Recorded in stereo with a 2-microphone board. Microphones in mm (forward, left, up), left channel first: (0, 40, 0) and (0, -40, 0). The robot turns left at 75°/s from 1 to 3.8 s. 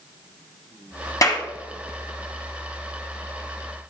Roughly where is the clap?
Left.